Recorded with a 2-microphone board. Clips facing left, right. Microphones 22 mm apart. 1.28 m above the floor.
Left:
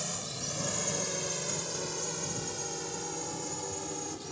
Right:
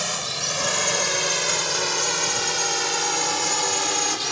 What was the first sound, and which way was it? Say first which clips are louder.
A drone: right 11 dB; 50° right (ahead or behind).